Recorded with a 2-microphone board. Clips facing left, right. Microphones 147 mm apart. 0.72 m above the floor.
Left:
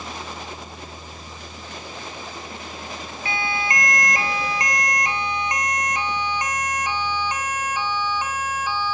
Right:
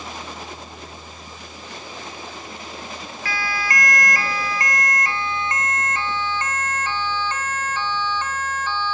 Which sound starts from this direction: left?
A siren, at 3.2 s.